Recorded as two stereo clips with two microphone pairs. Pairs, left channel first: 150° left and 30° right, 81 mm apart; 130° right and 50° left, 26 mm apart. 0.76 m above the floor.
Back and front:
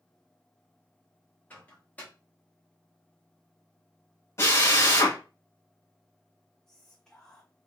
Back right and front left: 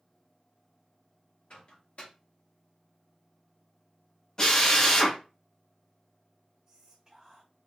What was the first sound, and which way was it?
A microwave, 145° right.